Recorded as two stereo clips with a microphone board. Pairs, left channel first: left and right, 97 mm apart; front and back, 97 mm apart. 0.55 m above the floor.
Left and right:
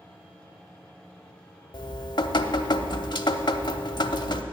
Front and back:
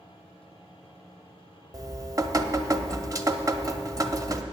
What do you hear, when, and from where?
1.7 s dripping: 125° left, 0.6 m